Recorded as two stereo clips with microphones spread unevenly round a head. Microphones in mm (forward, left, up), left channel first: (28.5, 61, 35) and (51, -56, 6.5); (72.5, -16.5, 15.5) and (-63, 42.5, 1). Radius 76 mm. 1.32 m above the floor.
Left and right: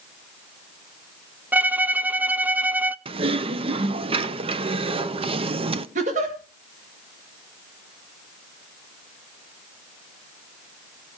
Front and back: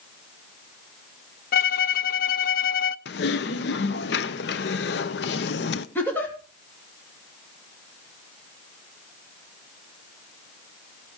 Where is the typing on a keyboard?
45° right, 0.8 m.